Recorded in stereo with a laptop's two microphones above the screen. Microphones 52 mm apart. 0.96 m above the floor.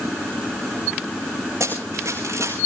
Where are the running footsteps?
65° right (ahead or behind), 4.5 m.